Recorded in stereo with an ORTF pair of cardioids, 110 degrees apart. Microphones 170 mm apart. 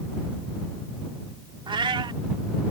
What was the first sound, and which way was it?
A cat meowing, 30° right.